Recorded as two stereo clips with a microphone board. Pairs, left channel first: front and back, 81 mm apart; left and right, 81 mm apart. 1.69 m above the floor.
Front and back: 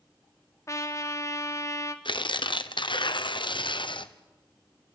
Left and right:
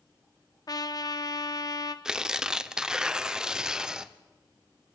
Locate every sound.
0.7 s a trumpet: 55° left, 1.3 m
2.0 s tearing paper: 10° right, 1.0 m